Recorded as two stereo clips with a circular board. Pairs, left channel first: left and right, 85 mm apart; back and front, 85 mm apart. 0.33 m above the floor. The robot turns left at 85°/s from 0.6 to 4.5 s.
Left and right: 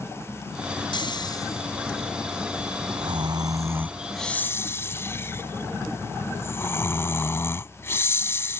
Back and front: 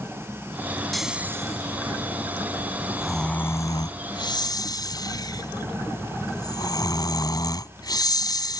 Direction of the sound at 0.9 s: 95° left.